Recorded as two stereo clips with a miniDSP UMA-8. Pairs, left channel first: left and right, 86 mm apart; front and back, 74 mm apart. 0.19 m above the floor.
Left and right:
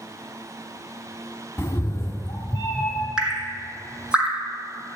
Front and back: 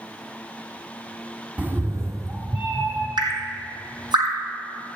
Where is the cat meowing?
125° left, 0.7 m; by 3.1 s 150° left, 2.5 m.